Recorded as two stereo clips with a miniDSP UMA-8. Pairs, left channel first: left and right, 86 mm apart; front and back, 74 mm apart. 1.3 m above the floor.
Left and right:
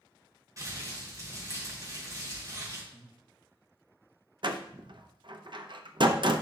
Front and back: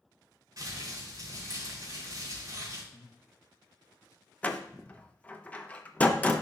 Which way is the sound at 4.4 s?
70° right.